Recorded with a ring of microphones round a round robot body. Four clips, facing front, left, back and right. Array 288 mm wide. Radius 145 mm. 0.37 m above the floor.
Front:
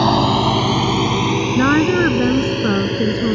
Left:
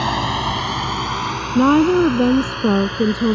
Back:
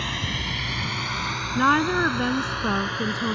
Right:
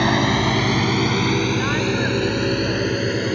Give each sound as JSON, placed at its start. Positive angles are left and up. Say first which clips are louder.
{"t": 0.0, "sound": "a drone", "louder": "right 2 dB, front 17 dB", "azimuth_deg": -25}
{"t": 1.6, "sound": "a woman speaking", "louder": "left 9 dB, front 5 dB", "azimuth_deg": 65}